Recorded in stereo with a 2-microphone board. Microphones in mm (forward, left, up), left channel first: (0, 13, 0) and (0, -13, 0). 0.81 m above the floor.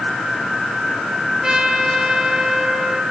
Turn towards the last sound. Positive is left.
turn(degrees=-25)  # may be behind; listen again after turning